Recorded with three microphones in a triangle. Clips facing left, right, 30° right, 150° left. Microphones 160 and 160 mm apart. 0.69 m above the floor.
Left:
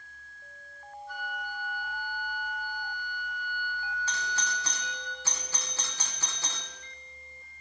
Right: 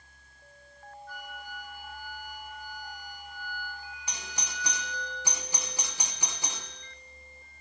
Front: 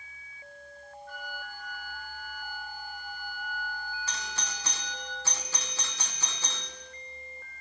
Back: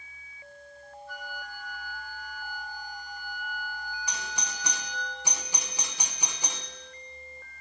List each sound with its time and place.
1.1 s a flute: 60° right, 6.5 m
4.1 s a doorbell: 150° right, 1.1 m